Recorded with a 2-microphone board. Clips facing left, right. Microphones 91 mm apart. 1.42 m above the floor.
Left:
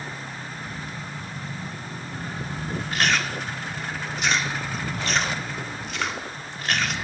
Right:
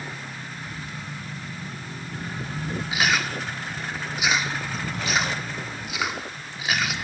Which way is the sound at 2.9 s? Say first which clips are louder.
Even; 10° right (ahead or behind).